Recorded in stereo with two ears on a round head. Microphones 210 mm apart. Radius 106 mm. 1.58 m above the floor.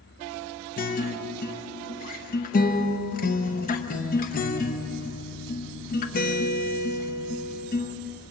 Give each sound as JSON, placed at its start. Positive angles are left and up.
{"t": 0.8, "sound": "a guitar", "side_deg": 35, "distance_m": 1.0}